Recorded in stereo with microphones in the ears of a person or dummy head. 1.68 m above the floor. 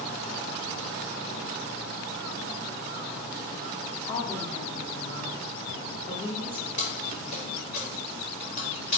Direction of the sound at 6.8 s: 35° left (ahead or behind).